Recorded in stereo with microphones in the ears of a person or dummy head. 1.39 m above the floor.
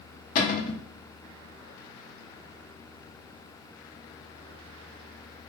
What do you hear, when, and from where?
0.3 s a cupboard door: 40° left (ahead or behind), 0.6 m